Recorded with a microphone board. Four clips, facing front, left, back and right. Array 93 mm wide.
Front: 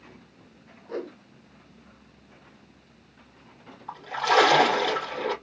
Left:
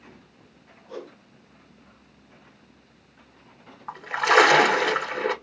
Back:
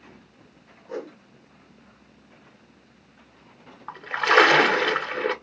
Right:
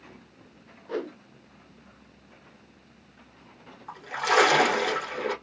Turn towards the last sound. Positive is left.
turn(degrees=145)